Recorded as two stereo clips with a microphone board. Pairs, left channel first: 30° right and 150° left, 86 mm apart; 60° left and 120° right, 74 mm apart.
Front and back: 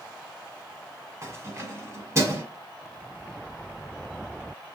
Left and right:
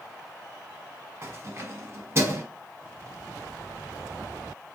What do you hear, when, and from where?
1.2 s keys jangling: 165° right, 1.4 m